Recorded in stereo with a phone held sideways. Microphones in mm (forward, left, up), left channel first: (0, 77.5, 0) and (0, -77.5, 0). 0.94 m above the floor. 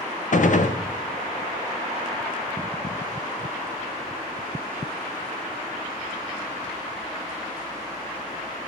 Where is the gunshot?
60° left (ahead or behind), 0.6 m.